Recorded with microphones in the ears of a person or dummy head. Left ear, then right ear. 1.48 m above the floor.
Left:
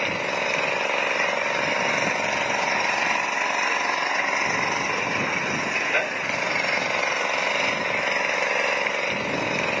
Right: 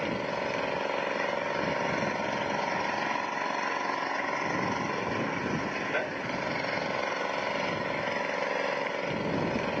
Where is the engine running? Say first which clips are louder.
Left 7 dB; 25° left (ahead or behind).